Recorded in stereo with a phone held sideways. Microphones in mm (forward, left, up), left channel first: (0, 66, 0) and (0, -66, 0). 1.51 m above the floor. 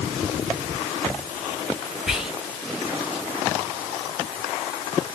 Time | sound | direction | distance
2.1 | whispering | 5° right (ahead or behind) | 1.1 m